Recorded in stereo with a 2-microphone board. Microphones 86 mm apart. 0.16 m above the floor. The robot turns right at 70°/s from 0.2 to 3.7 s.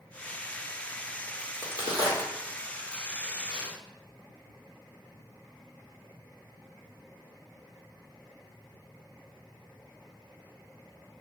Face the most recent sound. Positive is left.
turn(degrees=-70)  # may be behind; listen again after turning